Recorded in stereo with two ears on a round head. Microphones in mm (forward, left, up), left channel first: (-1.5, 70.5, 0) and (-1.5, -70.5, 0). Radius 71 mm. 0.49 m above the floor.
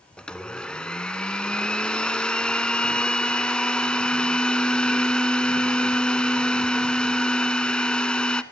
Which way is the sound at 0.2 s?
5° left (ahead or behind).